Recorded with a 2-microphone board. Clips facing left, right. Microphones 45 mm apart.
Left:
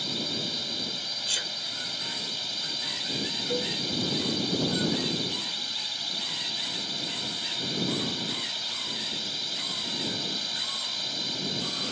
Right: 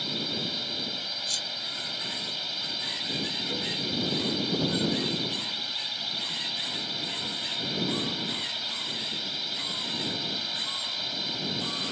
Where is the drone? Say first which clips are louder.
Even; 5° right (ahead or behind).